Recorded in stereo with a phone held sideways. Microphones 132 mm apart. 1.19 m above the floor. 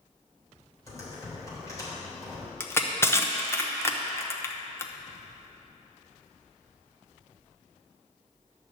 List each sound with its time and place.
0.9 s typing on a keyboard: 25° left (ahead or behind), 3 m
2.6 s crushing: 20° left (ahead or behind), 0.7 m